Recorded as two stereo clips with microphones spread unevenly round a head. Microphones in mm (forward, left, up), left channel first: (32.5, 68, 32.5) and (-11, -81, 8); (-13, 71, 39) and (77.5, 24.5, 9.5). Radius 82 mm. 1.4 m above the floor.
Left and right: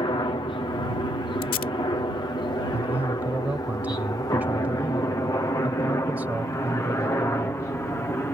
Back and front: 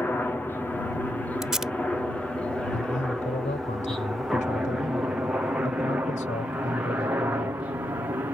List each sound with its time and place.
0.0 s a helicopter: 80° left; by 8.4 s straight ahead
1.4 s tape being pulled: 70° left
2.7 s a man speaking: 170° left